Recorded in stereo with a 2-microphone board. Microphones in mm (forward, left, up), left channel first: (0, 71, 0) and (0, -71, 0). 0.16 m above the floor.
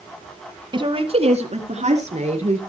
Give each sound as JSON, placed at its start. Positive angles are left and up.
{"t": 0.7, "sound": "a woman speaking", "side_deg": -35, "distance_m": 1.7}